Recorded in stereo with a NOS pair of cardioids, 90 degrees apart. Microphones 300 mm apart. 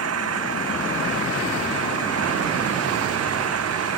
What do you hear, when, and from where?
0.0 s an engine running: 55° right